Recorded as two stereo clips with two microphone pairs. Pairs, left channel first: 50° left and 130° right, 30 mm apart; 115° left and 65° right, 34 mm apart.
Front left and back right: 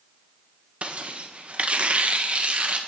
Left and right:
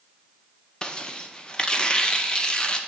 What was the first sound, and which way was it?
Tearing paper, 175° right.